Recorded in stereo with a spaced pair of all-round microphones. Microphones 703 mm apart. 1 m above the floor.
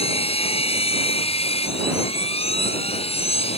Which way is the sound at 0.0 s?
10° left (ahead or behind).